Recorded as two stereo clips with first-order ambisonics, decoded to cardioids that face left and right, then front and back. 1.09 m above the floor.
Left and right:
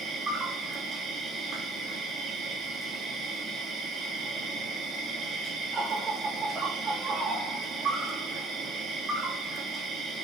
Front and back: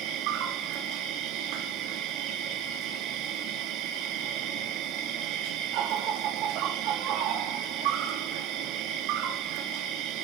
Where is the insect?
155° right, 2.5 m.